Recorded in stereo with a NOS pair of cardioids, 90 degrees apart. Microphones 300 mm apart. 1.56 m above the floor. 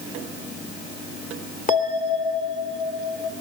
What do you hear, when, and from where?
1.7 s a bell: 30° left, 3 m